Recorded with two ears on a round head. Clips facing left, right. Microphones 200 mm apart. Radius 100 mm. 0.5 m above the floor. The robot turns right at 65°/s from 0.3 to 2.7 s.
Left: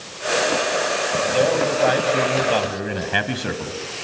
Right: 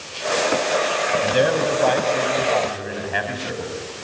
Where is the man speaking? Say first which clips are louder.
Even; 35° right, 3 m; by 3.7 s 60° left, 3 m.